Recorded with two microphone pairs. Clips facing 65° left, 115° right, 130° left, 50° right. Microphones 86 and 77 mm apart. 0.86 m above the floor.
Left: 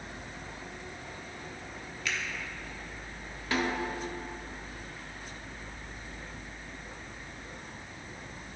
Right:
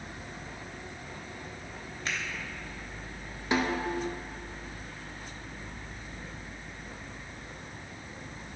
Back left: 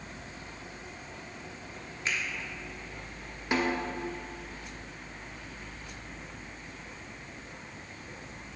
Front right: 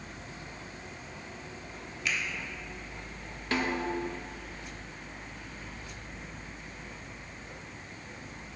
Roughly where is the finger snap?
Behind.